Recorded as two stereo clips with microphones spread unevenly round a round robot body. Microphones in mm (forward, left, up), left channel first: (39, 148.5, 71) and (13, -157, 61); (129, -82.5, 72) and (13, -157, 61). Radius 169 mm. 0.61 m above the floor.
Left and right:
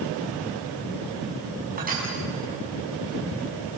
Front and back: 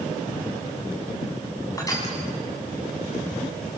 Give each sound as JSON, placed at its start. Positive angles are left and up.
{"t": 1.8, "sound": "crushing", "azimuth_deg": -30, "distance_m": 7.0}